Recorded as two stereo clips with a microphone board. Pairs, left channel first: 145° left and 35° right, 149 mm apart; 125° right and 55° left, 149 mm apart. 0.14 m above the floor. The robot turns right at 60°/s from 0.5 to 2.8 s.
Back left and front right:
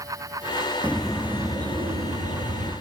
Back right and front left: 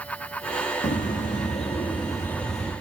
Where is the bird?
140° right, 1.3 m; by 2.7 s 25° right, 1.3 m.